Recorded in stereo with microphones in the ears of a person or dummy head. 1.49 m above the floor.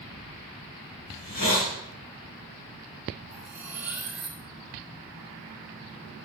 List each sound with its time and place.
1.1 s a hiss: 45° left (ahead or behind), 3.5 m
3.3 s cutlery clinking: 10° right (ahead or behind), 2.5 m